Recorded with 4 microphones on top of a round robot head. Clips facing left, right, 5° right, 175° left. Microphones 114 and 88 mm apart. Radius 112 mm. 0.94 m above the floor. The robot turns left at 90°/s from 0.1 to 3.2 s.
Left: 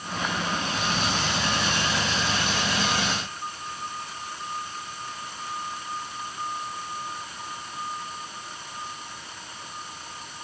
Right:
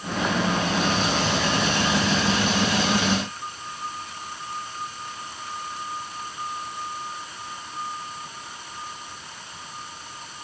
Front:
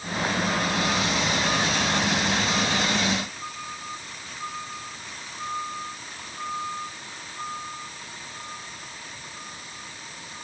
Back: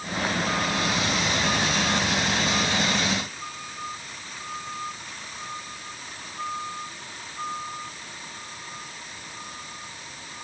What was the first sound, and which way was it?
Only background noise.